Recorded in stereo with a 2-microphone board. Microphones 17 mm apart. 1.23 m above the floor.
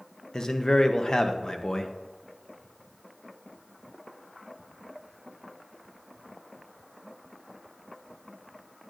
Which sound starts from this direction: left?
A man speaking, at 0.3 s.